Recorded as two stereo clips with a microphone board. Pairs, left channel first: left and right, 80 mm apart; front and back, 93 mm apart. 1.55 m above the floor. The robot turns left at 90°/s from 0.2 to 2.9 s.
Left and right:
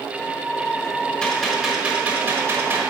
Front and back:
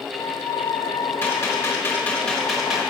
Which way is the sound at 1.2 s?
30° left.